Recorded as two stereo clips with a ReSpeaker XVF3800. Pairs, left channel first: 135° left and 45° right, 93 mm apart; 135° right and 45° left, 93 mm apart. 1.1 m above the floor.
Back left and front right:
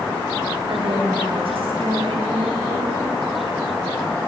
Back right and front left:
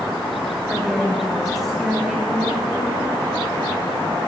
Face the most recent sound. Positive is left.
turn(degrees=-40)